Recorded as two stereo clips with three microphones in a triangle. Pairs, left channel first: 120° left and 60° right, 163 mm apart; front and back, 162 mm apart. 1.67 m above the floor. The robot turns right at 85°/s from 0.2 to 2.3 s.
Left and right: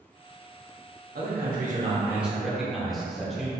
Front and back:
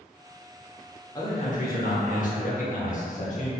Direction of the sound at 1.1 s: 70° right.